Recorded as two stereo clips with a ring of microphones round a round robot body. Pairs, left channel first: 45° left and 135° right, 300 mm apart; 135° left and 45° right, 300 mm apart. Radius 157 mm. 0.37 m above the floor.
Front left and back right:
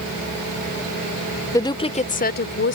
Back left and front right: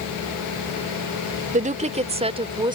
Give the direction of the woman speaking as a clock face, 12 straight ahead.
1 o'clock.